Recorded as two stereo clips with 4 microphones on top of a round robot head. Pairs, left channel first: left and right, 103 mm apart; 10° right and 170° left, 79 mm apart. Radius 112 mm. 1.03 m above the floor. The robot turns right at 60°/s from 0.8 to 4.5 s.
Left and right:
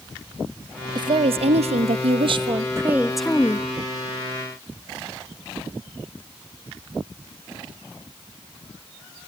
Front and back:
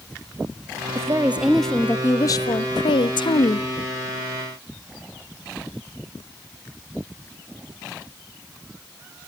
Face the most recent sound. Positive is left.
turn(degrees=80)